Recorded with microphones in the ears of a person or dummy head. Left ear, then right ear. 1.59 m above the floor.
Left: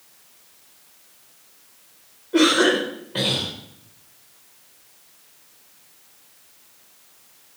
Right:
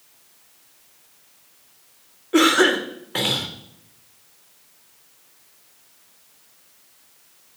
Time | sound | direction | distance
2.3 | a cough | 50° right (ahead or behind) | 1.1 m